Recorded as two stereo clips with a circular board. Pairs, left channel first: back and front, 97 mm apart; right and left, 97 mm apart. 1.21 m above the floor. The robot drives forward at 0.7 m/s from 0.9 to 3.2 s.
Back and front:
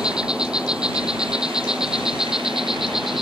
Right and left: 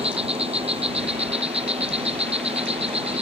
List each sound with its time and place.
0.0 s an insect: 80° left; by 3.2 s 85° left